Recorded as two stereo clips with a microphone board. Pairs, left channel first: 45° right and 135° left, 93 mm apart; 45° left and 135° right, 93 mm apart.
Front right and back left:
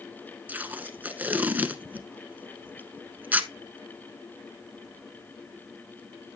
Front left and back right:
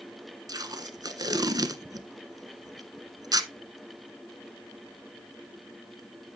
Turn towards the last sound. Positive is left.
turn(degrees=-160)